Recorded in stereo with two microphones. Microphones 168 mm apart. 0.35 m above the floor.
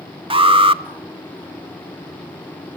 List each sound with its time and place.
0.3 s an alarm: 30° right (ahead or behind), 0.8 m